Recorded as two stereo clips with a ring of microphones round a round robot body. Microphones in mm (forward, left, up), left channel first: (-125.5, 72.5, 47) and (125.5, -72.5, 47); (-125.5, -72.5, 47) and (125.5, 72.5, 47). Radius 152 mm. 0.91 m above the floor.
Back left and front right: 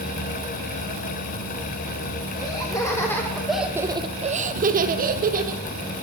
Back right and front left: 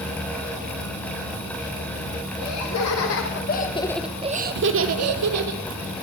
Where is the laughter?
135° right, 1.9 m; by 5.6 s 30° left, 1.9 m.